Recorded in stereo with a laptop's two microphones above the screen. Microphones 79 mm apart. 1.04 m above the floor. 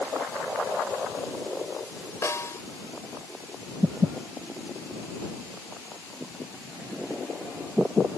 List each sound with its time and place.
2.2 s a snare drum: 35° left (ahead or behind)